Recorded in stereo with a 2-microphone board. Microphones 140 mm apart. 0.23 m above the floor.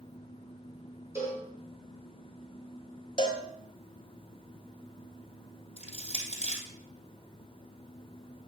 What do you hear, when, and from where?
1.1 s a cowbell: 20° right (ahead or behind), 4 m
3.2 s a cowbell: 35° left (ahead or behind), 1.3 m
5.8 s crushing: 50° left (ahead or behind), 3 m